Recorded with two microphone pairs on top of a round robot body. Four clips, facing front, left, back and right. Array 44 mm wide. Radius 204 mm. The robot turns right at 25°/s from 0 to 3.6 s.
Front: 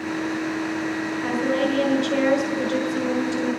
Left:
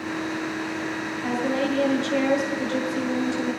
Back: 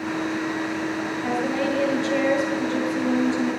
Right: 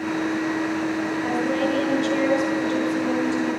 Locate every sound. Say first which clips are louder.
1.2 s a woman speaking: even, front 2 dB; 30° right, 7 m; by 3.5 s 30° left, 7 m